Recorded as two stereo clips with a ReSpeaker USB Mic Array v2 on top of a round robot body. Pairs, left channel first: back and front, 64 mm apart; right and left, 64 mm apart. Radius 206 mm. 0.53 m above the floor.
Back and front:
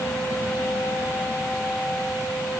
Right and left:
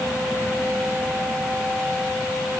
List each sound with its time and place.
Only background noise.